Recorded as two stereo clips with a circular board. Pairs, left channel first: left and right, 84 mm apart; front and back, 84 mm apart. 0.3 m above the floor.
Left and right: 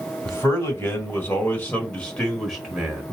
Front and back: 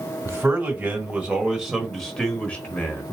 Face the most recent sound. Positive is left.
turn(degrees=-20)